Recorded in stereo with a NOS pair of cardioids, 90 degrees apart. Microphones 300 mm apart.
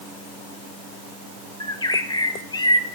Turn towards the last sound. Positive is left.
turn(degrees=15)